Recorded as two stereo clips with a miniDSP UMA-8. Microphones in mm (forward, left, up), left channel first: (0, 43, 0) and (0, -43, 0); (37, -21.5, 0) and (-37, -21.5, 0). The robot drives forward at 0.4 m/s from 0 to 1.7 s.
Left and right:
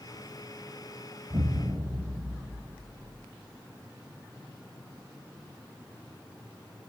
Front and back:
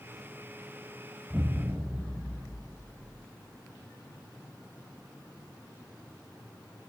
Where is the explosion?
90° right, 1.2 m; by 3.2 s 105° right, 1.2 m.